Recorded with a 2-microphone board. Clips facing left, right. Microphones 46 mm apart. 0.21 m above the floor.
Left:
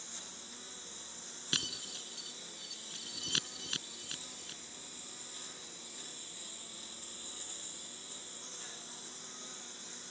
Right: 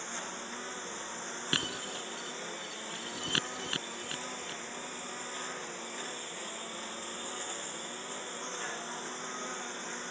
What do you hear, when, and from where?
0.0 s a lawn mower: 45° right (ahead or behind)
1.5 s breaking glass: 30° right (ahead or behind)